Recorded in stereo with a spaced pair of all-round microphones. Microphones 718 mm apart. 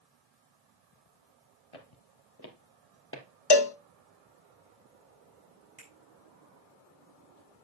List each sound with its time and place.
1.7 s footsteps: 50° left (ahead or behind), 1.7 m; by 3.2 s 15° left (ahead or behind), 2 m
3.5 s a cowbell: 40° left (ahead or behind), 0.6 m
5.8 s a finger snap: 45° right (ahead or behind), 6.5 m